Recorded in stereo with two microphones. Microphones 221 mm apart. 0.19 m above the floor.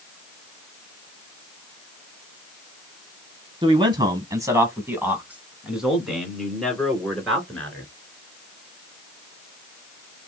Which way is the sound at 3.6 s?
20° right (ahead or behind).